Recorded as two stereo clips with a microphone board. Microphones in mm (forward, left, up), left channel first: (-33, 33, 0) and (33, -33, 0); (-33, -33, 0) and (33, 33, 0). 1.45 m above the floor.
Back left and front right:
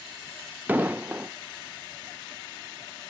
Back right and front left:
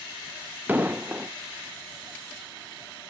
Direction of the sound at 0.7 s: Straight ahead.